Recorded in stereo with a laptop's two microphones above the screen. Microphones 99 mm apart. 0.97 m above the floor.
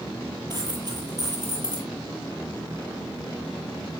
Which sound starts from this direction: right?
A dropped coin, at 0.5 s.